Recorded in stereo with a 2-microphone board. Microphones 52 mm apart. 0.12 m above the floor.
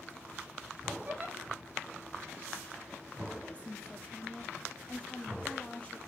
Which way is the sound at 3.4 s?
25° left (ahead or behind).